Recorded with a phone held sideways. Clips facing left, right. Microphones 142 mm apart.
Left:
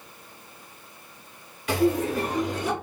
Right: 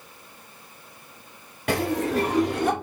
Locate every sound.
1.7 s laughter: 65° right (ahead or behind), 1.4 m; by 2.7 s 50° right (ahead or behind), 0.7 m